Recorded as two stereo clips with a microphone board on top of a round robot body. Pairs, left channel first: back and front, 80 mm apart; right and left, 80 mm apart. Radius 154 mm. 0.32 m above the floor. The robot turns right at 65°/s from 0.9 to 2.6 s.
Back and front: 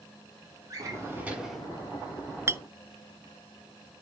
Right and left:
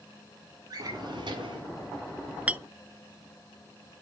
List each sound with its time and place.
0.7 s a drawer: 50° left, 2.0 m; by 1.6 s 100° left, 2.0 m
2.5 s a clink: 25° left, 0.5 m; by 2.6 s 35° left, 0.5 m